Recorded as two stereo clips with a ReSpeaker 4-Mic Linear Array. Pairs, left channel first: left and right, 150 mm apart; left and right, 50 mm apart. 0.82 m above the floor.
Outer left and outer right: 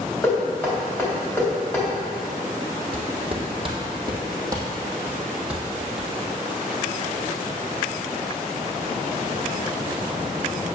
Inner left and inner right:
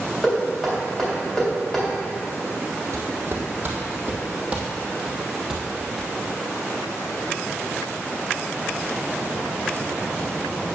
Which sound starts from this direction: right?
Footsteps, at 2.9 s.